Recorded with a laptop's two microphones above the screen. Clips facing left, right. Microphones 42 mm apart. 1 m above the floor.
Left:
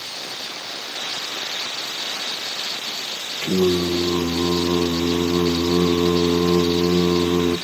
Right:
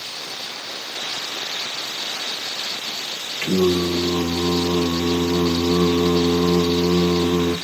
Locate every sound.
3.4 s singing: 70° right (ahead or behind), 0.8 m